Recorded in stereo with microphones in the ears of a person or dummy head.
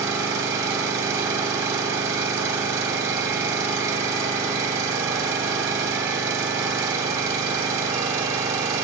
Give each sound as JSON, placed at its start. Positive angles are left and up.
{"t": 0.0, "sound": "an engine running", "side_deg": -20, "distance_m": 3.0}